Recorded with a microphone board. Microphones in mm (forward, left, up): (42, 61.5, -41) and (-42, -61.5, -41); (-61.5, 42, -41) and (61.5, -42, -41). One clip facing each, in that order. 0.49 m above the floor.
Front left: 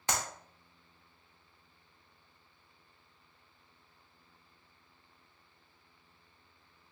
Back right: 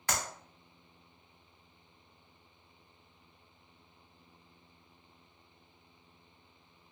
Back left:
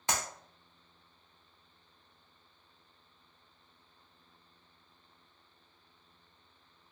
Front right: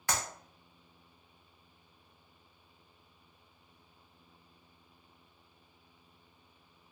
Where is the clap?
100° left, 0.6 m.